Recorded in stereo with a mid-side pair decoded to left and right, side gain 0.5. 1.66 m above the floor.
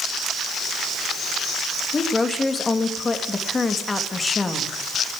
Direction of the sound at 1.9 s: 25° left.